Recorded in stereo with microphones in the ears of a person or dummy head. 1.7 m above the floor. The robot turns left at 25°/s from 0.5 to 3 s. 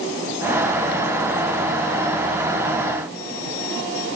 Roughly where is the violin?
I don't hear a violin.